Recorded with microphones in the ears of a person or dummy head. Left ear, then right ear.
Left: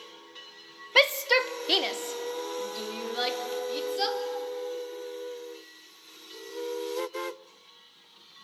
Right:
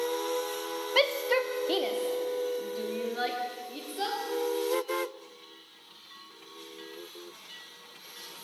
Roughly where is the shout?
Left.